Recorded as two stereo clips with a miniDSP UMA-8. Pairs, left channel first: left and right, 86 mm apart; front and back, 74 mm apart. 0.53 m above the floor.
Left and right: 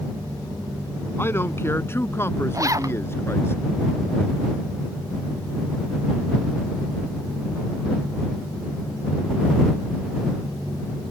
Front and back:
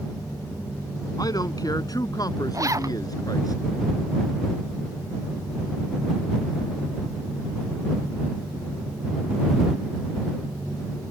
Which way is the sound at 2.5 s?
140° right.